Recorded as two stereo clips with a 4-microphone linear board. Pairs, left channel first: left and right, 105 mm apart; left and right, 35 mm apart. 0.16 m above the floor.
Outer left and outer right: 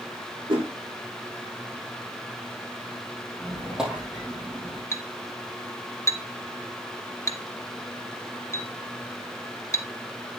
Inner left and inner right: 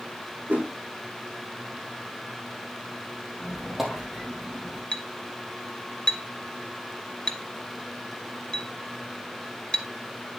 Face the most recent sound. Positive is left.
turn(degrees=25)  # may be behind; listen again after turning